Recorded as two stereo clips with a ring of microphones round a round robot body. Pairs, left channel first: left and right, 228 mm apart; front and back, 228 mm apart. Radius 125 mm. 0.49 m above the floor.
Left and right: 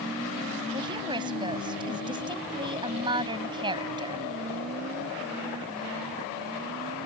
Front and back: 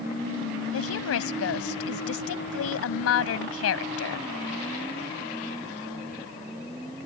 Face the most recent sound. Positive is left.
turn(degrees=-15)